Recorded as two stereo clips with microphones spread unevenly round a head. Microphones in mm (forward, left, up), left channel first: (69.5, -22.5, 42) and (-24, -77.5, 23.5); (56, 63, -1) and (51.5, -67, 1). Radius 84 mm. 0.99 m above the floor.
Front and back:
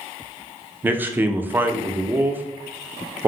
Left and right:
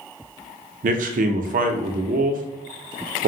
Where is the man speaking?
80° right, 0.5 m.